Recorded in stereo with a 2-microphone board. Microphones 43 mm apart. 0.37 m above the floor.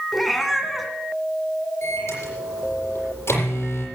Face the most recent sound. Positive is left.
turn(degrees=85)